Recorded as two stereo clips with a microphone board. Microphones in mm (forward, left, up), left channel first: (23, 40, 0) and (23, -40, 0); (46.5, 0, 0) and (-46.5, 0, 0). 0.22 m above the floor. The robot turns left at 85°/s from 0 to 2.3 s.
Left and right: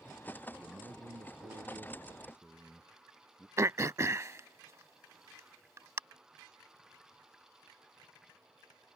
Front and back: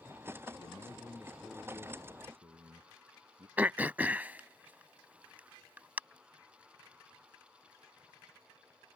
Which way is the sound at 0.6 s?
20° right.